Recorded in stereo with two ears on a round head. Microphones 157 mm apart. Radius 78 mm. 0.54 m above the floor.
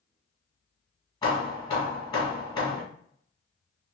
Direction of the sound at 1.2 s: 25° left (ahead or behind).